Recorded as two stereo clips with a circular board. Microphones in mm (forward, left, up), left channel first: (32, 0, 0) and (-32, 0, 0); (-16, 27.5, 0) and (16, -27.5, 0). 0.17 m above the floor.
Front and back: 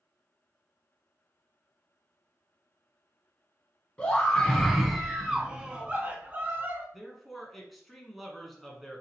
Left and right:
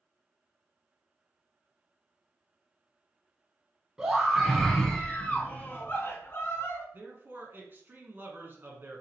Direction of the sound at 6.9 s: 85° right.